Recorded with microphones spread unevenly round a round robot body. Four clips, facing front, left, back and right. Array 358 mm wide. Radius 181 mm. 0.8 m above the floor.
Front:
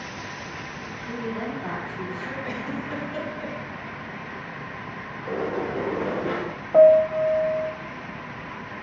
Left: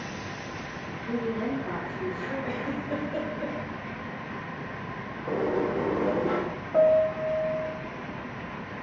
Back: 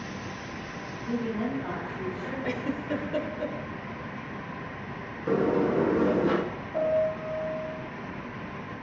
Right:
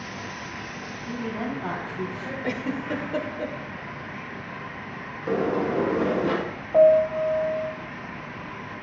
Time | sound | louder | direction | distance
1.1 | a woman speaking | left 2 dB, back 1 dB | 60° right | 5.5 m
2.4 | a giggle | right 3 dB, back 4 dB | 115° right | 2 m
5.3 | a sliding door | right 3 dB, back 4 dB | 145° right | 1.3 m
6.7 | a piano | right 4 dB, front 12 dB | 15° right | 0.8 m